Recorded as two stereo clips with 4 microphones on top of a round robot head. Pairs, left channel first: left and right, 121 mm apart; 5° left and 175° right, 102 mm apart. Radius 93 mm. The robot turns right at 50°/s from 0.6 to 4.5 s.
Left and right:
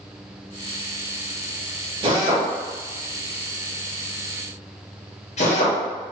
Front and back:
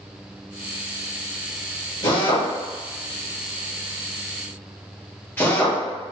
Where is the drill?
45° right, 1.8 m; by 5.8 s 80° left, 1.8 m.